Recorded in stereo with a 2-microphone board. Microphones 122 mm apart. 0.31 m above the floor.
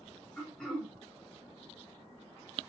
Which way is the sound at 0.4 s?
5° left (ahead or behind).